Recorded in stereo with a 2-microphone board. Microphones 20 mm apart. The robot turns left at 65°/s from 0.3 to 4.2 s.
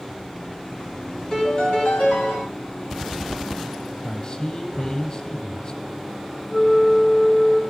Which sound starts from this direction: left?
A man speaking, at 4.0 s.